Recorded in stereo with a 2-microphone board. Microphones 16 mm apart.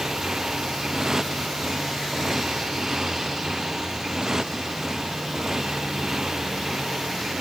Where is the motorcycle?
35° right (ahead or behind).